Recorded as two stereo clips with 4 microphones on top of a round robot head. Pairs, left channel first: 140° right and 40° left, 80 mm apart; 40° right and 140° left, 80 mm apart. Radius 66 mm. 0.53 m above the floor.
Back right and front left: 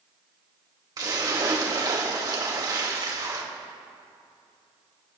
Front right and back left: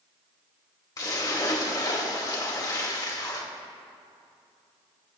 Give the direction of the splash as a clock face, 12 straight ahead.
12 o'clock.